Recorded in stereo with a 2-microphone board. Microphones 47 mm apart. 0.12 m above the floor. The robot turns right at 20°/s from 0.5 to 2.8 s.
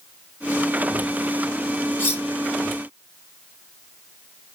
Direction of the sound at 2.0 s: 50° left (ahead or behind).